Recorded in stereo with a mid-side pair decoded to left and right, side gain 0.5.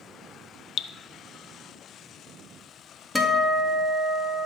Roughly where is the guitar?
Ahead.